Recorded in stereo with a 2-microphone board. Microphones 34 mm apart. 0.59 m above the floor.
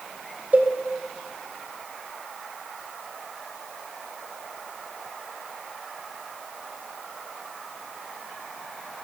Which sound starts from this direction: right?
A cowbell, at 0.5 s.